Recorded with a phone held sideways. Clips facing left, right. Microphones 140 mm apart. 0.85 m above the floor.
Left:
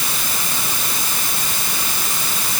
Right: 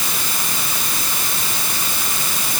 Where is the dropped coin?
No dropped coin in this recording.